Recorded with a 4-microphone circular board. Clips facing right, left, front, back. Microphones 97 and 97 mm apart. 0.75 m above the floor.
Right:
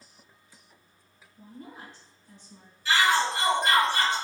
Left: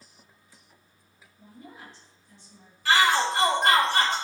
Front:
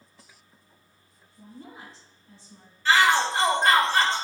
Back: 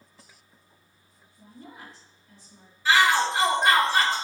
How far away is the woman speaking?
About 3 m.